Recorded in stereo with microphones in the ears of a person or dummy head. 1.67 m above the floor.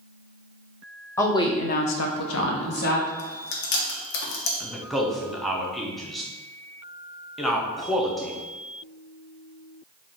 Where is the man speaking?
Centre (ahead or behind), 0.8 m.